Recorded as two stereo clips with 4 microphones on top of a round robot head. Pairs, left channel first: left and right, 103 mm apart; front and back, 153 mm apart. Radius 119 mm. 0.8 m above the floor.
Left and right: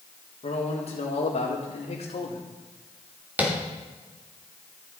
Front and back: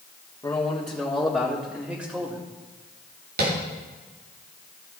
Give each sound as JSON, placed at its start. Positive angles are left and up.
{"t": 0.4, "sound": "a man speaking", "azimuth_deg": 65, "distance_m": 2.0}
{"t": 3.4, "sound": "tapping", "azimuth_deg": -165, "distance_m": 2.5}